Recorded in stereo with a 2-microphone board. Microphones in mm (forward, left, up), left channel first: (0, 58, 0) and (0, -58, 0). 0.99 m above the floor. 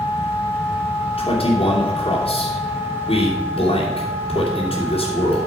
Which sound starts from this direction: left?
A man speaking, at 1.2 s.